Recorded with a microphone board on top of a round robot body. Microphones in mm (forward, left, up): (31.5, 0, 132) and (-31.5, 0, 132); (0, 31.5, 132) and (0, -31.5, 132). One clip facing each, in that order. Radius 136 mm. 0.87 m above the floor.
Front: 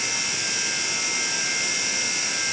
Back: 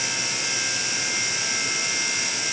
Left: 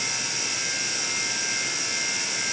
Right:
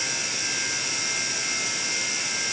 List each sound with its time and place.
Only background noise.